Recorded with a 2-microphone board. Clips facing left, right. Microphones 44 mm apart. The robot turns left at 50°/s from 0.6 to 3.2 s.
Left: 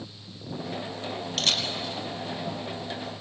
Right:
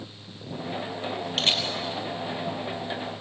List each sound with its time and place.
1.4 s a camera shutter: 25° right (ahead or behind), 2.5 m; by 1.7 s 10° right (ahead or behind), 2.5 m